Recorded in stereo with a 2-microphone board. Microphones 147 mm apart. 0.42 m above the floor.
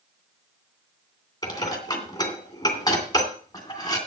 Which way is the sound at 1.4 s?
25° left (ahead or behind).